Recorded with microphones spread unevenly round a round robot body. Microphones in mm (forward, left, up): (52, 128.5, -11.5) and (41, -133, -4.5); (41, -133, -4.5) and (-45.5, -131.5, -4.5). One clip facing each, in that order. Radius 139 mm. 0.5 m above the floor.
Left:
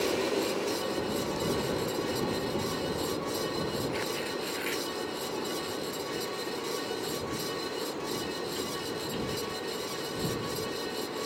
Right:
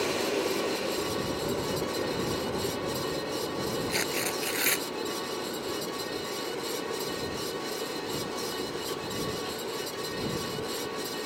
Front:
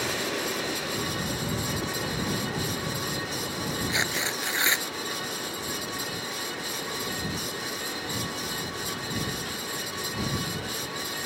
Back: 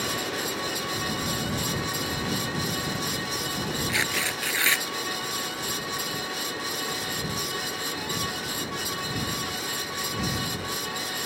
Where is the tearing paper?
70° right.